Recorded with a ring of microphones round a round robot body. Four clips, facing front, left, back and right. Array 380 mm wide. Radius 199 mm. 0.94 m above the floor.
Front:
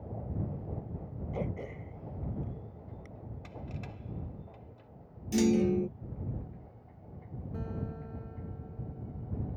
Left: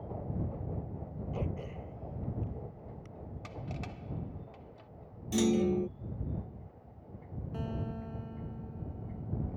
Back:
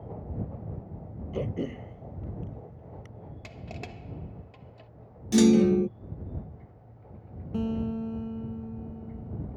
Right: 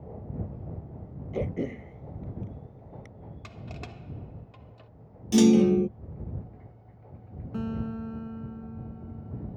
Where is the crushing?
150° right.